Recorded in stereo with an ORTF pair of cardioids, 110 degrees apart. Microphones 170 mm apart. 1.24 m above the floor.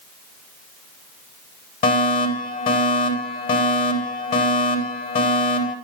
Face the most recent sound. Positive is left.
turn(degrees=60)